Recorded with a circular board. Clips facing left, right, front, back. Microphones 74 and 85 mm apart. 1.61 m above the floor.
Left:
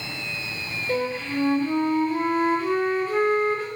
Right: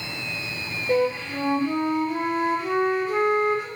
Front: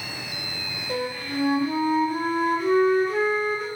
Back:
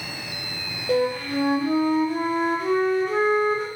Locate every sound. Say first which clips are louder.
0.9 s a flute: right 4 dB, back 7 dB; 165° right, 1.3 m